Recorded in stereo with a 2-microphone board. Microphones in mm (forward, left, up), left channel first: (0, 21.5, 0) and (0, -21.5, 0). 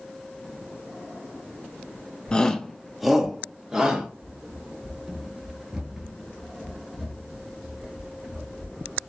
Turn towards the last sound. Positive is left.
turn(degrees=-10)  # may be behind; listen again after turning